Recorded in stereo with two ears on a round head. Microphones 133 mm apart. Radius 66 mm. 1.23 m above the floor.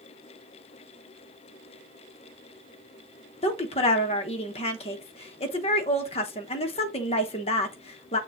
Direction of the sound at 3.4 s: 40° left (ahead or behind).